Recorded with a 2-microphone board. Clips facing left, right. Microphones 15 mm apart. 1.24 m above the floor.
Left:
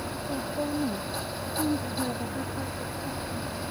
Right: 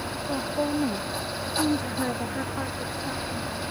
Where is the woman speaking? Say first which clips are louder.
Right 4 dB; 70° right (ahead or behind); by 3.6 s 60° right (ahead or behind).